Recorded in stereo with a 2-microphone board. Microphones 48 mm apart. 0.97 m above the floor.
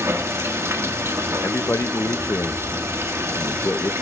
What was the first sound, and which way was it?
Running water, 70° right (ahead or behind).